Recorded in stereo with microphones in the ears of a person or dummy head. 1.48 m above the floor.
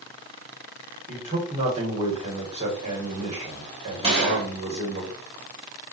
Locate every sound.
1.1 s a man speaking: 35° right (ahead or behind), 3.5 m
4.0 s a gunshot: 30° right (ahead or behind), 3.5 m